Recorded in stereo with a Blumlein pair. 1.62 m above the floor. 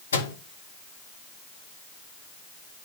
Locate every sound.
0.1 s a microwave: 70° left, 1.2 m